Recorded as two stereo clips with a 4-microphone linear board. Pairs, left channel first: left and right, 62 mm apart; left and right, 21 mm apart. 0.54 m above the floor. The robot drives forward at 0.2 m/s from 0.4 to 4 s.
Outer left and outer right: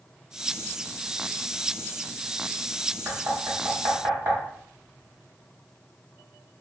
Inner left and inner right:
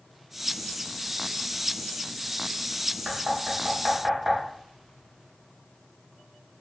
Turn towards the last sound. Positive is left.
turn(degrees=-40)  # may be behind; listen again after turning